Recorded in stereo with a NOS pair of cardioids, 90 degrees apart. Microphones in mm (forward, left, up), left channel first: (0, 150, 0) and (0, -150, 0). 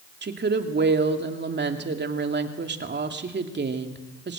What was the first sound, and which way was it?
A woman speaking, 35° right.